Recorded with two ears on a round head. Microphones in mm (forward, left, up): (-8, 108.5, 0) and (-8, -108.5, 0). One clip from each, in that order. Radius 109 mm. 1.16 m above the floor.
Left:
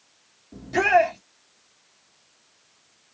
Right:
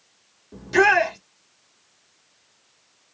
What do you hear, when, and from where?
0.5 s a shout: 45° right (ahead or behind), 2 m